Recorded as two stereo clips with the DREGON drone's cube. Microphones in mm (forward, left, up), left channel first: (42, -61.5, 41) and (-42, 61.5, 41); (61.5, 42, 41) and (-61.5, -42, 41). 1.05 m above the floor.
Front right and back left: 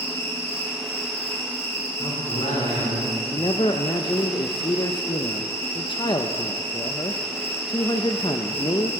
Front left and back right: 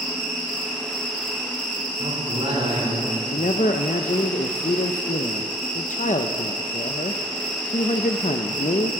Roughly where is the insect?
Ahead.